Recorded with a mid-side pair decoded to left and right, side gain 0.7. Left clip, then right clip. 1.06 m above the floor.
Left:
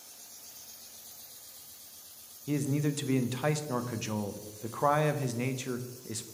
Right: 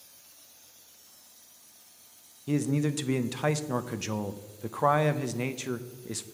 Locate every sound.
2.5 s a man speaking: 10° right, 0.6 m